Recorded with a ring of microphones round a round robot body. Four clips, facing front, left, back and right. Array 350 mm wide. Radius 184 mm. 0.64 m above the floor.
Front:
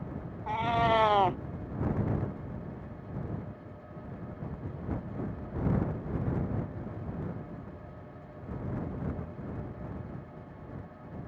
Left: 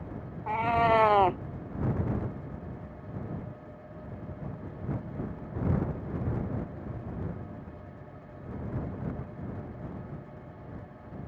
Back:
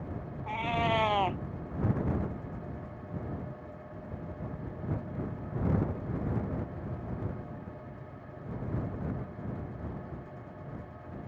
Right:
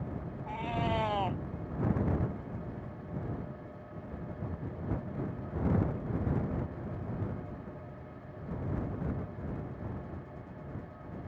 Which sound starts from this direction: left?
A cat meowing, at 0.5 s.